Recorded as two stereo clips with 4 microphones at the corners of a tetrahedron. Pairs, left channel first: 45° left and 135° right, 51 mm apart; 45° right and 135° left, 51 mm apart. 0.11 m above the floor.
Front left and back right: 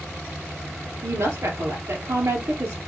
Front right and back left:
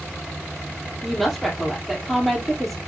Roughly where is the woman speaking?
Behind right.